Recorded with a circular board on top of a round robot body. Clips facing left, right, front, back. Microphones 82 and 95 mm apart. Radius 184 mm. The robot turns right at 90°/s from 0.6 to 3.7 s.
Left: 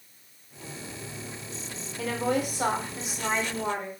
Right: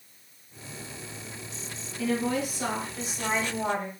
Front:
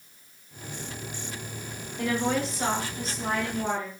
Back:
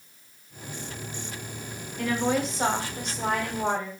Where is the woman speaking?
65° left, 1.8 m; by 3.9 s 140° right, 1.8 m.